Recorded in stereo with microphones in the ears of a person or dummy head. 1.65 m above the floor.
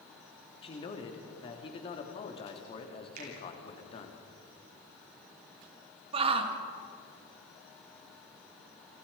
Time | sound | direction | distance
0.6 | a man speaking | 35° left (ahead or behind) | 3 m
3.2 | a finger snap | 50° right (ahead or behind) | 9.5 m
6.1 | a shout | 30° right (ahead or behind) | 2.5 m